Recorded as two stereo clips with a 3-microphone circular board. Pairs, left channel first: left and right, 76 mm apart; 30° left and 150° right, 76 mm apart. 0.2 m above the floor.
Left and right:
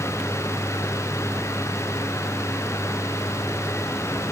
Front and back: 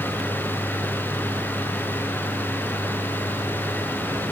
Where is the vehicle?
165° left.